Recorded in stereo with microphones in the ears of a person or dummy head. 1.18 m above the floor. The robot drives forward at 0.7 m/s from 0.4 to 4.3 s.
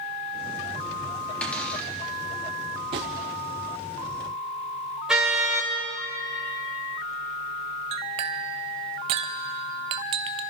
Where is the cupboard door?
5° left (ahead or behind), 1.8 m; by 1.9 s 10° left (ahead or behind), 1.5 m.